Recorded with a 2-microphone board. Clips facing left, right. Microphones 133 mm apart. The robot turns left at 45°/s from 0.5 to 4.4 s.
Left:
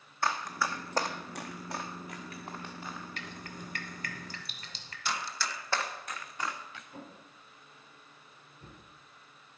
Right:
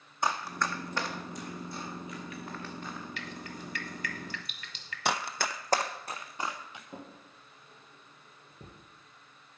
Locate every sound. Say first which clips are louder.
0.2 s running footsteps: right 1 dB; 15° right (ahead or behind), 1.0 m; by 3.1 s 5° right (ahead or behind), 1.9 m
3.2 s dripping: right 2 dB; 45° left (ahead or behind), 0.9 m; by 5.0 s 35° left (ahead or behind), 0.9 m
5.0 s running footsteps: right 5 dB; 70° right (ahead or behind), 0.5 m; by 6.8 s 20° right (ahead or behind), 1.3 m
6.9 s a drawer: right 1 dB; 75° right (ahead or behind), 3.5 m